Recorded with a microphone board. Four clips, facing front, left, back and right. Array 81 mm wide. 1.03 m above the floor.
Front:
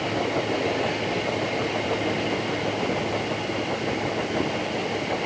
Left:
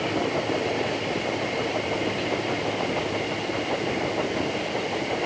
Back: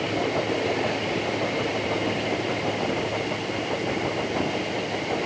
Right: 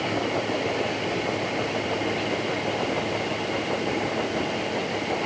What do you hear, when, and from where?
Only background noise.